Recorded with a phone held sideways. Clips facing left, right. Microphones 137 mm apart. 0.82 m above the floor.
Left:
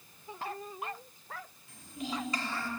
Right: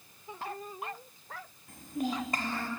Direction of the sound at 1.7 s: 50° right (ahead or behind).